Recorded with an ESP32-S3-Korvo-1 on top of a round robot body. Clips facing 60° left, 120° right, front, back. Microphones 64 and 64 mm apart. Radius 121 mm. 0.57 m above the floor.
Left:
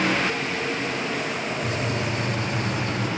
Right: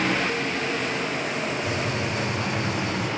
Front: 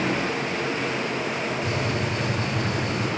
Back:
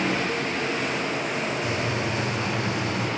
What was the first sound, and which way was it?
A gunshot, 35° left.